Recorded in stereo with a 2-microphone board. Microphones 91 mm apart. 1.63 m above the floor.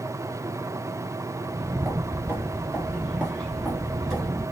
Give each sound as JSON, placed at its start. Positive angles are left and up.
{"t": 1.4, "sound": "footsteps", "side_deg": -25, "distance_m": 1.8}